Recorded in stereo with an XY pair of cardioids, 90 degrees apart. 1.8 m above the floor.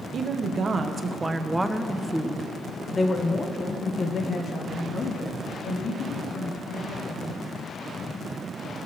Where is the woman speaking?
60° right, 1.5 m; by 7.3 s 65° left, 4 m.